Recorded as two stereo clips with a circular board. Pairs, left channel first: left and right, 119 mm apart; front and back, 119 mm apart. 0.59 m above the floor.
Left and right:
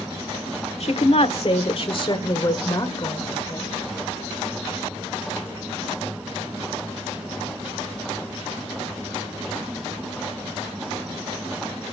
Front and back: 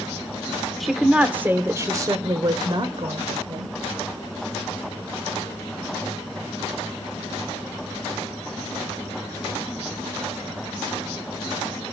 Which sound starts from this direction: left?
A woman speaking, at 0.8 s.